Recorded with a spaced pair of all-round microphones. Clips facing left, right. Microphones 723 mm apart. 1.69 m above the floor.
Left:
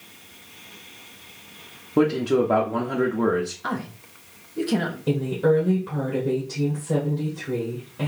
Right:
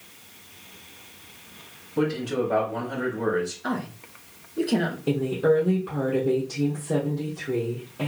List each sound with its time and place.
2.0 s a man speaking: 85° left, 0.8 m
3.6 s a woman speaking: 40° left (ahead or behind), 0.9 m
5.1 s a woman speaking: 30° left (ahead or behind), 1.2 m